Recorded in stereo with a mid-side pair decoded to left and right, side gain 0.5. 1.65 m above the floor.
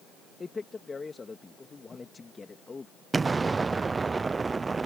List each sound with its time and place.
0.4 s a man speaking: 30° left
3.1 s an explosion: 25° right